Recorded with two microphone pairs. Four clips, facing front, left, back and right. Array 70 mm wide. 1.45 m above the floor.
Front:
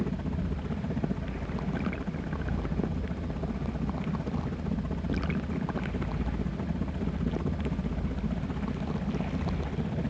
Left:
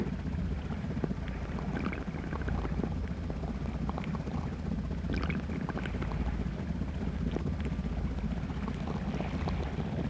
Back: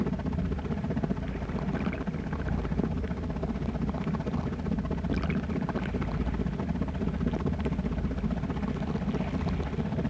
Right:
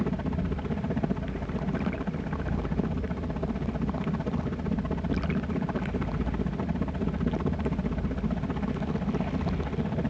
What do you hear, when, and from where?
0.0 s a helicopter: 110° right